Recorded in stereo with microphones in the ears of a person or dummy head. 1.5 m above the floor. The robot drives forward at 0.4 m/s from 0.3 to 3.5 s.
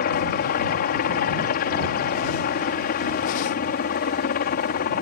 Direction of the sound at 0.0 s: 50° left (ahead or behind).